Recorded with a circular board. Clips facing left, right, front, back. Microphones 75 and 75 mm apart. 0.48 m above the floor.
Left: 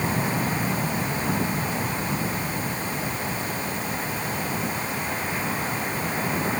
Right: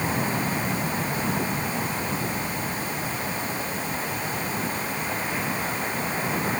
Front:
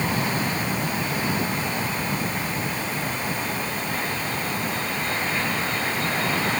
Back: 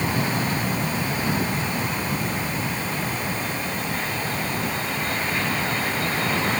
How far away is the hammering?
I don't hear hammering.